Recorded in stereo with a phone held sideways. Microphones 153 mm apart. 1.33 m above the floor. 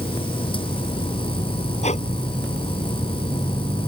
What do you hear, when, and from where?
0.0 s a machine running: 35° left (ahead or behind)
1.8 s breathing: 50° left (ahead or behind)